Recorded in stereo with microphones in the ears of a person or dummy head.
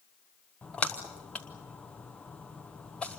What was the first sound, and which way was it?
A splash, 5° left (ahead or behind).